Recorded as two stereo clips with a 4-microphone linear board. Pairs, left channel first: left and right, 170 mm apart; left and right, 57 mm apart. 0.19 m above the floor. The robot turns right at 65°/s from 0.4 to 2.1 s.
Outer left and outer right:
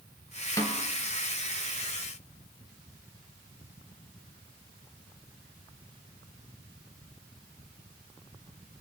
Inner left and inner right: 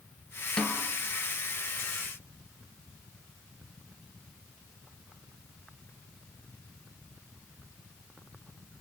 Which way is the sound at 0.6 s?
20° left (ahead or behind).